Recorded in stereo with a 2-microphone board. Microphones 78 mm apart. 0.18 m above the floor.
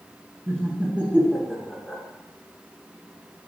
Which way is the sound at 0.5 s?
30° right (ahead or behind).